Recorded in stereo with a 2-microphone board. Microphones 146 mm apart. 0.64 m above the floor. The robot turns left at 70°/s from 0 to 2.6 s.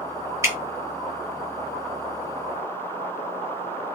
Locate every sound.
0.4 s dripping: 20° right (ahead or behind), 1.0 m; by 0.6 s 10° right (ahead or behind), 1.0 m